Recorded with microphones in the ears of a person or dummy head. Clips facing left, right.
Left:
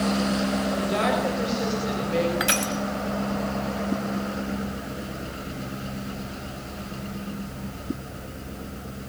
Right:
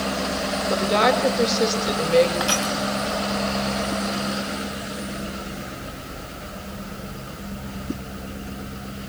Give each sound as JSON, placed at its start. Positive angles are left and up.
{"t": 0.7, "sound": "a woman speaking", "side_deg": -65, "distance_m": 6.5}
{"t": 2.4, "sound": "crushing", "side_deg": 30, "distance_m": 2.5}